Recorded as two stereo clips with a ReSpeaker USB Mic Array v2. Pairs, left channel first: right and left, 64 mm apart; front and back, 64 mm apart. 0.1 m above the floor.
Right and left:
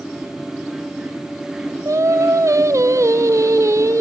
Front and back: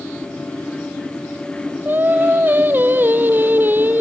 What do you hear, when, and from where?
1.9 s singing: 125° left, 0.8 m